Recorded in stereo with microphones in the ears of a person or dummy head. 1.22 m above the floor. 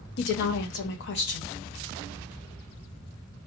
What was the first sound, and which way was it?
A woman speaking, 60° left (ahead or behind).